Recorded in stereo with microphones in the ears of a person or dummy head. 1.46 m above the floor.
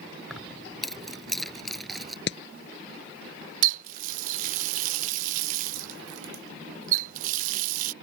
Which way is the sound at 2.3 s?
70° left (ahead or behind).